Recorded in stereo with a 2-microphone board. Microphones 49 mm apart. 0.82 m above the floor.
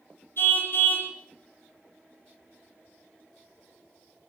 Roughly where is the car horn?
Left.